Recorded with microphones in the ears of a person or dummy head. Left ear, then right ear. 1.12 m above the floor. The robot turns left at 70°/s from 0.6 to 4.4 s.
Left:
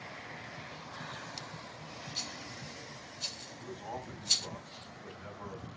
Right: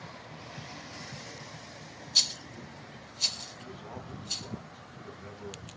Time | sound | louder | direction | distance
2.1 | a rattle | right 15 dB | 45° right (ahead or behind) | 0.9 m
3.6 | a man speaking | left 2 dB | 160° left | 6 m